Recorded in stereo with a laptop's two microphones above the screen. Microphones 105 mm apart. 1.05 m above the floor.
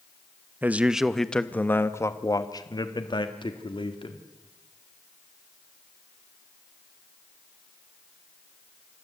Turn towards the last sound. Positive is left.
turn(degrees=55)  # may be behind; listen again after turning